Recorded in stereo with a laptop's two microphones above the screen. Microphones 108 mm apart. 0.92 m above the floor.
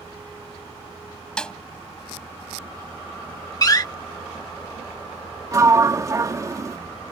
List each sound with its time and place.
1.4 s a snare drum: 10° left (ahead or behind)
3.6 s a door slam: 35° left (ahead or behind)
5.5 s a sliding door: 30° right (ahead or behind)